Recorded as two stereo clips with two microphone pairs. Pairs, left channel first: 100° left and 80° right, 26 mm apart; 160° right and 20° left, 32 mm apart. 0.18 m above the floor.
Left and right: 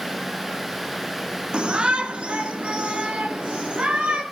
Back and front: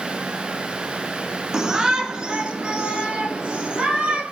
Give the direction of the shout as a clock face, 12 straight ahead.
2 o'clock.